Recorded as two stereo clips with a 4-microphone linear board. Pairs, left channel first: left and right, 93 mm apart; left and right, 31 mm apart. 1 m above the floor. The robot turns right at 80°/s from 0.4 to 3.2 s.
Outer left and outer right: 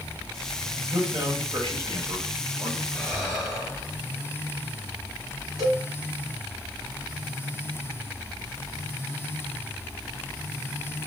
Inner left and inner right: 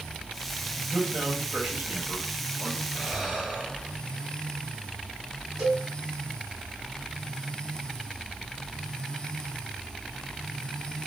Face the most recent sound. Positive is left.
turn(degrees=0)  # may be behind; listen again after turning